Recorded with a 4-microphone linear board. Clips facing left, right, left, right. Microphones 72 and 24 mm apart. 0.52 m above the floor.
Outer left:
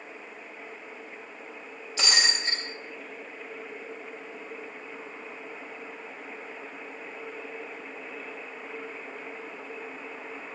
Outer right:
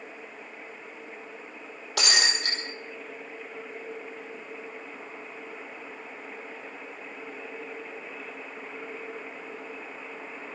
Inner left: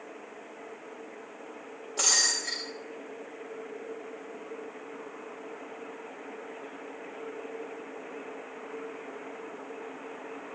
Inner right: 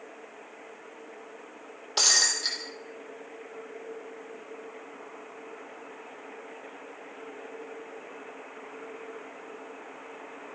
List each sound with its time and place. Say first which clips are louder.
2.0 s breaking glass: outer right 1 dB, inner right 3 dB; 70° right (ahead or behind), 5.5 m